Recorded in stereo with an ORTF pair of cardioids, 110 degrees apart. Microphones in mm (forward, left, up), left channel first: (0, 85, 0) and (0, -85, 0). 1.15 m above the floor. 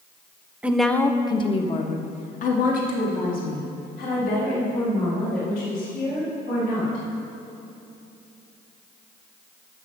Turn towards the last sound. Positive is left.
turn(degrees=75)